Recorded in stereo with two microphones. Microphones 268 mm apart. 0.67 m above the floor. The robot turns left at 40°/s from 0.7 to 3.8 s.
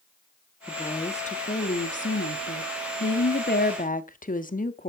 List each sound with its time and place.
0.7 s a woman speaking: 165° left, 0.9 m; by 4.9 s 40° left, 0.9 m